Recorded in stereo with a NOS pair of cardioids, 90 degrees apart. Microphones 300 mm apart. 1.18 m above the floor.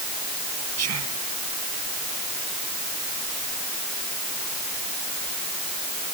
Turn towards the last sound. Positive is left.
turn(degrees=-60)